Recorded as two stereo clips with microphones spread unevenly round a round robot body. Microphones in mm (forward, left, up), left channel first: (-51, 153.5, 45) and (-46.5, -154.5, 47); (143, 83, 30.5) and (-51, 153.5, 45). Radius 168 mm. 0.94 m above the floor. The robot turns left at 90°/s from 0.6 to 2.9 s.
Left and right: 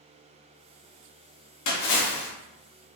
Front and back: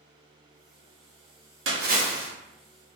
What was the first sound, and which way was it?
A splash, 130° left.